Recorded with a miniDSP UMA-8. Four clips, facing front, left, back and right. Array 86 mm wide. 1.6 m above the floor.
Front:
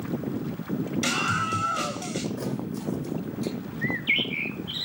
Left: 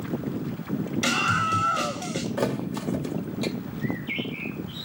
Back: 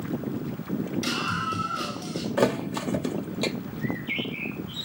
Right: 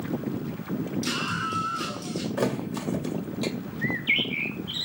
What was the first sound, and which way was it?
A scream, 65° left.